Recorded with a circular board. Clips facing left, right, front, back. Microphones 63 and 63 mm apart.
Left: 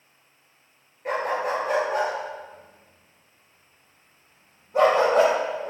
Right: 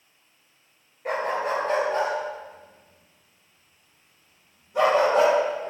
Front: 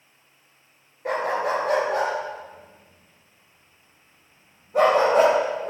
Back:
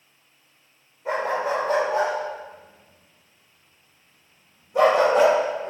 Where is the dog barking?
Straight ahead, 3 m; by 5.7 s 50° left, 5 m.